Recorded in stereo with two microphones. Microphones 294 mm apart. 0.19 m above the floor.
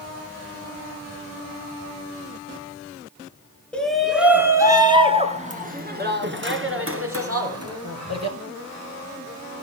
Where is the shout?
5° left (ahead or behind), 2.5 m; by 8.4 s 60° right (ahead or behind), 3 m.